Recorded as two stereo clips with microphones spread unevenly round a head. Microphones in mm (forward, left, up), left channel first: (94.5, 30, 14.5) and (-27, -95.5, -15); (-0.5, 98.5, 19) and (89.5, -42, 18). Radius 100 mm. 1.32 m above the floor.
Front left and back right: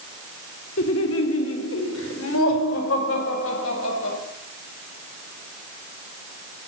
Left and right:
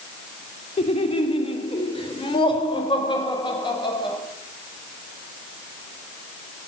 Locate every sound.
0.8 s laughter: 70° left, 3 m; by 4.2 s 60° left, 6 m